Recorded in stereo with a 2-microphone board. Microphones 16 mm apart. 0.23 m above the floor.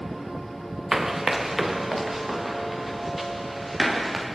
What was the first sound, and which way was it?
Running footsteps, 30° right (ahead or behind).